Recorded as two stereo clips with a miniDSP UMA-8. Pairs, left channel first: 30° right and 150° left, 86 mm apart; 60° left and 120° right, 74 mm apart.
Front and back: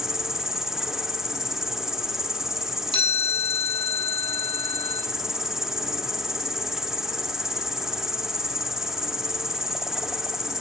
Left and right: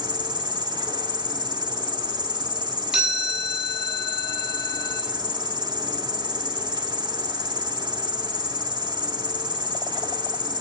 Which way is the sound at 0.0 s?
125° right.